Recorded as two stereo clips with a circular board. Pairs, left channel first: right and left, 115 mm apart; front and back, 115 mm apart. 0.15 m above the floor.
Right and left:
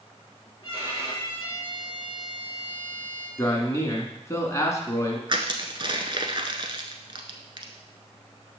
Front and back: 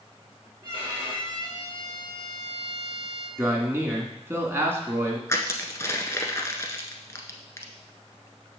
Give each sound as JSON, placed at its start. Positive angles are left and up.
{"t": 0.6, "sound": "a violin", "azimuth_deg": -140, "distance_m": 3.5}
{"t": 3.4, "sound": "a man speaking", "azimuth_deg": -130, "distance_m": 1.8}
{"t": 5.3, "sound": "crushing", "azimuth_deg": 60, "distance_m": 1.0}